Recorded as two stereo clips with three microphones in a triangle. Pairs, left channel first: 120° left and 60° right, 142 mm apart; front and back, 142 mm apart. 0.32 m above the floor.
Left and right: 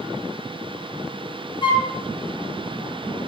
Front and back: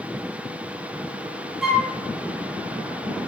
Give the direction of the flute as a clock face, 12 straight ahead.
9 o'clock.